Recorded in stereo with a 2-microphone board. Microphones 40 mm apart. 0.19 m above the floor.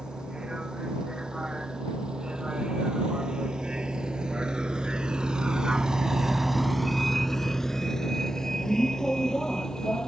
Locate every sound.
0.0 s a vehicle: 20° right (ahead or behind); by 10.1 s 15° left (ahead or behind)